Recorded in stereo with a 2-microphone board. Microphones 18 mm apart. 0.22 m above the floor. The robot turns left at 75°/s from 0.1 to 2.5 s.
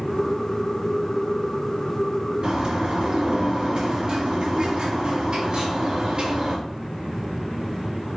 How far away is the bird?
About 3.5 m.